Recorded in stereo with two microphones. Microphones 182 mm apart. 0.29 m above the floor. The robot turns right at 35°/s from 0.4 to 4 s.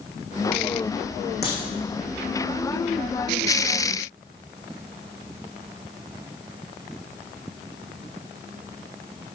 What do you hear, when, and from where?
1.4 s a crack: 65° left (ahead or behind), 6 m; by 1.6 s 60° left (ahead or behind), 6 m